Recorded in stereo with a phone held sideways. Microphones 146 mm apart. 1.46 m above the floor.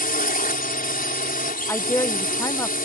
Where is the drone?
80° left.